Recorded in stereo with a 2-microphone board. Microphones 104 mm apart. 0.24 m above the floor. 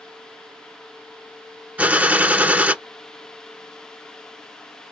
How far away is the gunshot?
About 0.6 m.